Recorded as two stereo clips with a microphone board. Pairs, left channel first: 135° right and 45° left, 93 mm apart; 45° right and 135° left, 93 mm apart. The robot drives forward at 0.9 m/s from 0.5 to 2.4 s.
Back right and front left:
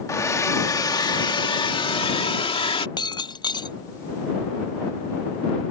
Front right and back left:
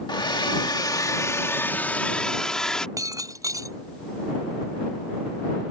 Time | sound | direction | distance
0.1 | a hair dryer | 80° right | ?
3.0 | breaking glass | 170° right | ?